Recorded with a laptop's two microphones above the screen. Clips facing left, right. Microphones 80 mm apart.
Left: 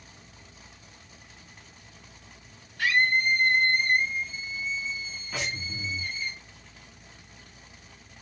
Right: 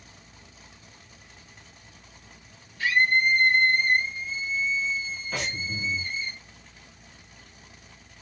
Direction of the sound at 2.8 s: 70° left (ahead or behind).